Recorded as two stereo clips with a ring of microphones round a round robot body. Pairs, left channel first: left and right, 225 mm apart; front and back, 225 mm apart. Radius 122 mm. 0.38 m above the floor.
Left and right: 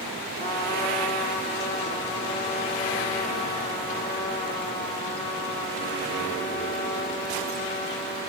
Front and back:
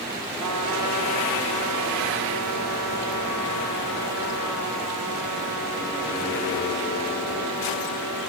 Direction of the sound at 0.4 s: 165° left.